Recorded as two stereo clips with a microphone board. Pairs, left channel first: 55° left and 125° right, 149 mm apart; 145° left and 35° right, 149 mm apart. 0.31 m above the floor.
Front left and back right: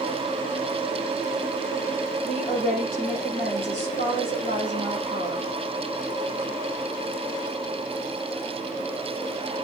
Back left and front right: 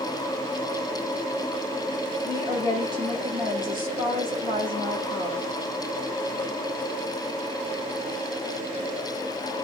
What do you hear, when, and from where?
2.2 s a woman speaking: 95° right, 6.5 m